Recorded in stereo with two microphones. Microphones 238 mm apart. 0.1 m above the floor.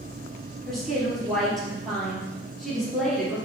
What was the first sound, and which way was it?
A woman speaking, centre (ahead or behind).